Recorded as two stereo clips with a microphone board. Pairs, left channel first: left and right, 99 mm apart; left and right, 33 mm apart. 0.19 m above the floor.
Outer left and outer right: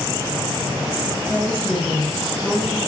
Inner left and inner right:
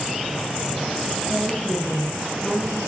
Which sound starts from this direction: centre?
A woman speaking, at 1.3 s.